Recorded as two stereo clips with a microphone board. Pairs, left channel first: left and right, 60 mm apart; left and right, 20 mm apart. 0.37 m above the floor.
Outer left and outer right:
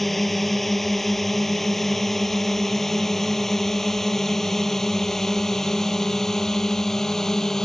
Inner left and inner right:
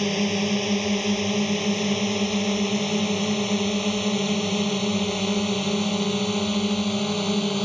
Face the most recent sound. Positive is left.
turn(degrees=5)  # may be behind; listen again after turning